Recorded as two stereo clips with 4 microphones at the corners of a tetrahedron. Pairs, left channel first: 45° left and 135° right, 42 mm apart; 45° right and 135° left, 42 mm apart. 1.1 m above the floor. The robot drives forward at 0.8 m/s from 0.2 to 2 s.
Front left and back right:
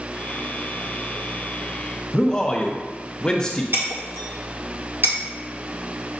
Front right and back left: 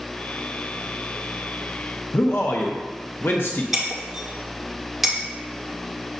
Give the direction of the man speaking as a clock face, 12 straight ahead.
1 o'clock.